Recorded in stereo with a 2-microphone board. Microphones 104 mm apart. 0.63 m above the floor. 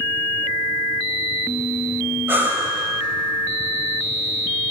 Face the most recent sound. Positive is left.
turn(degrees=-20)  # may be behind; listen again after turning